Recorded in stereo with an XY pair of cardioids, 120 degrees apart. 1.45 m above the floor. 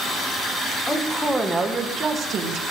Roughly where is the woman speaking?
Ahead.